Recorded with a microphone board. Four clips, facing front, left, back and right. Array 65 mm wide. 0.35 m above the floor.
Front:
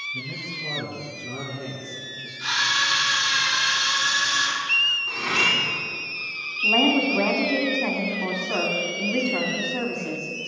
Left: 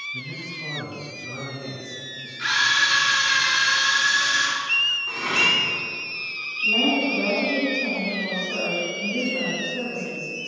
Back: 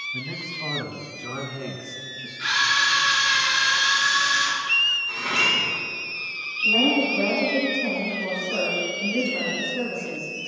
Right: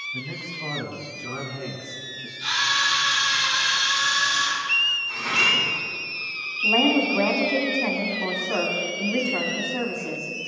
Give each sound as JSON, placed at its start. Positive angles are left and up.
{"t": 0.1, "sound": "a man speaking", "azimuth_deg": -150, "distance_m": 3.0}
{"t": 2.4, "sound": "a camera shutter", "azimuth_deg": 110, "distance_m": 5.5}
{"t": 5.1, "sound": "cutlery clinking", "azimuth_deg": 55, "distance_m": 6.5}
{"t": 6.6, "sound": "a woman speaking", "azimuth_deg": -50, "distance_m": 3.5}